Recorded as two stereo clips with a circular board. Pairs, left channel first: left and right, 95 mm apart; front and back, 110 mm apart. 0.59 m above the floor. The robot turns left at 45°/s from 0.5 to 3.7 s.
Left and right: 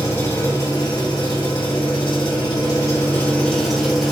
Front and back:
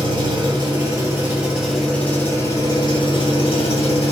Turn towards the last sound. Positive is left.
turn(degrees=5)